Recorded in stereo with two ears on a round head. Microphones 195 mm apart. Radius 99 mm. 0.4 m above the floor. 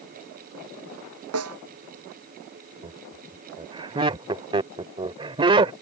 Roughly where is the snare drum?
Right.